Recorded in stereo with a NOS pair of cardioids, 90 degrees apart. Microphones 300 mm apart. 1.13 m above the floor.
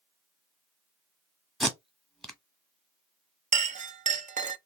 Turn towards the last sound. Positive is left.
turn(degrees=-25)